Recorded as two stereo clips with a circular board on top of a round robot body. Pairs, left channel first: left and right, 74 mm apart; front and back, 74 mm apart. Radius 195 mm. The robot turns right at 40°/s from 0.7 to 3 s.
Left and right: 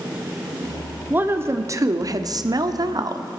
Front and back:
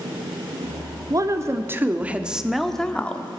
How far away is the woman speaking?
About 1.2 m.